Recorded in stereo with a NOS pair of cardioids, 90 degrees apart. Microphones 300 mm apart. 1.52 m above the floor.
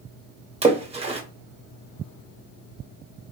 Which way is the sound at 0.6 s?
20° right.